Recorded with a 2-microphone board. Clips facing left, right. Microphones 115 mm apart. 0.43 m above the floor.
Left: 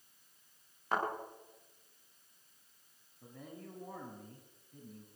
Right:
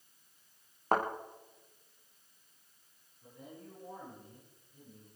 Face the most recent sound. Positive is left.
turn(degrees=75)  # may be behind; listen again after turning